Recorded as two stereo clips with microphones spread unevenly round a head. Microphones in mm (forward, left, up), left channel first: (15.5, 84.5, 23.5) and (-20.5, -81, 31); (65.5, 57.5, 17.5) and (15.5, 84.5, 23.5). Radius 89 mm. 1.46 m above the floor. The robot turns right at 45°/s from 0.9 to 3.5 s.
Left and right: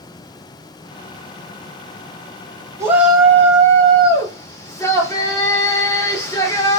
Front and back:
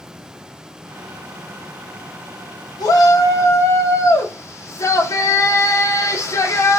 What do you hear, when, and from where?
2.8 s a shout: 25° right, 1.2 m; by 6.8 s 5° left, 1.2 m